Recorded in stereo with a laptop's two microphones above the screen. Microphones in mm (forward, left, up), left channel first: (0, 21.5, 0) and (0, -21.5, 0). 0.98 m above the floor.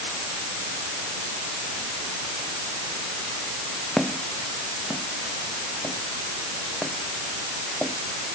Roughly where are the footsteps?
Centre.